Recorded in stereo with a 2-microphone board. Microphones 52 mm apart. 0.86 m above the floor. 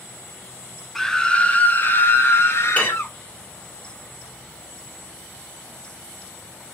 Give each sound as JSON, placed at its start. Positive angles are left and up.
{"t": 0.9, "sound": "a scream", "side_deg": 5, "distance_m": 0.7}
{"t": 2.8, "sound": "dishes clattering", "side_deg": 30, "distance_m": 1.4}